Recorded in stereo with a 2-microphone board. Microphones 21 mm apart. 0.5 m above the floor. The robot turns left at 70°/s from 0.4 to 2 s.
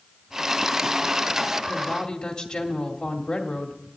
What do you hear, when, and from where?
1.7 s a woman speaking: 50° left (ahead or behind), 2 m; by 3.8 s 30° left (ahead or behind), 2 m